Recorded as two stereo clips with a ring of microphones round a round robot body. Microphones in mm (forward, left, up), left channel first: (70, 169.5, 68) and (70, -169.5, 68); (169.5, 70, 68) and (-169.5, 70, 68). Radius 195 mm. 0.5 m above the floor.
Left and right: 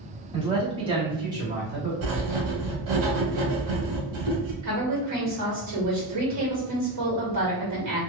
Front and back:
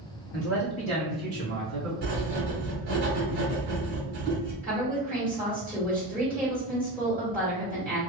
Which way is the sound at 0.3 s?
20° right.